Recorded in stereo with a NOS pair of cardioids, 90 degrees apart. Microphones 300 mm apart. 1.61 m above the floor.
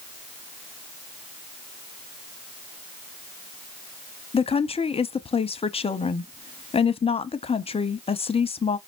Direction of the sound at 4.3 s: 20° left.